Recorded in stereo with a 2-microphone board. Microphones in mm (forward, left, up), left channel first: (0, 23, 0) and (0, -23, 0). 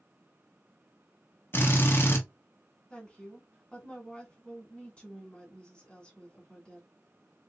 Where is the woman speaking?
20° left (ahead or behind), 1.9 m.